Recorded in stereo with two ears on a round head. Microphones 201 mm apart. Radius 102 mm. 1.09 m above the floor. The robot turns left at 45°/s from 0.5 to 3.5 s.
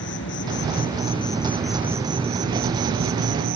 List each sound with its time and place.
0.0 s an insect: 55° left; by 3.6 s 80° right